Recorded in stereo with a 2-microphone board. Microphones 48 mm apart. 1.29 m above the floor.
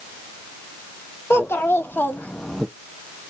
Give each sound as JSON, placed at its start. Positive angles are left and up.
{"t": 1.3, "sound": "a child speaking", "side_deg": 60, "distance_m": 1.3}